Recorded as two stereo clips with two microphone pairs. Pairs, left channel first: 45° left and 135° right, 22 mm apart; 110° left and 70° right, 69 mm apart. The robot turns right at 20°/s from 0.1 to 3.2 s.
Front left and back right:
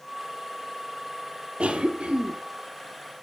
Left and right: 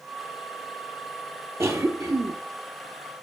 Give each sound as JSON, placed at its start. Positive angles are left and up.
{"t": 1.6, "sound": "a cough", "azimuth_deg": -115, "distance_m": 3.5}